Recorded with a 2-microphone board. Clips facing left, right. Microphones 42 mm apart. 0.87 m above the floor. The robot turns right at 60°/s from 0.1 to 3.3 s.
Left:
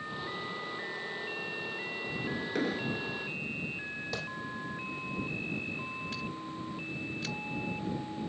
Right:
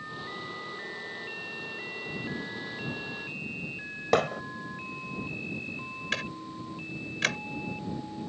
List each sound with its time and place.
2.5 s an explosion: 75° left; by 3.1 s 110° left
4.1 s hammering: 70° right (ahead or behind)
6.1 s ticking: 70° right (ahead or behind)